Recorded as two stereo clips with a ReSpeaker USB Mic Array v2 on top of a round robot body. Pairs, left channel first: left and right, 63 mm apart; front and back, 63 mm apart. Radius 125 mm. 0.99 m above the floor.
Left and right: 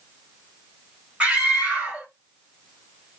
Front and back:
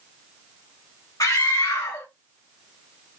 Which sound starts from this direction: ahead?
A scream, at 1.2 s.